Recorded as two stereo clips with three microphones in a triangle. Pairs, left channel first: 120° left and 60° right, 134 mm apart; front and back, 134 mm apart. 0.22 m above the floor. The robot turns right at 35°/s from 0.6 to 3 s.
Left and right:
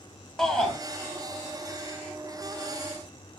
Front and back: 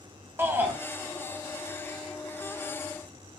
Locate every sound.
0.4 s a shout: 165° right, 1.1 m; by 0.8 s 160° right, 1.1 m